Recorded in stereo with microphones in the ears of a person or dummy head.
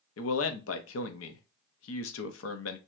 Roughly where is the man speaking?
Left.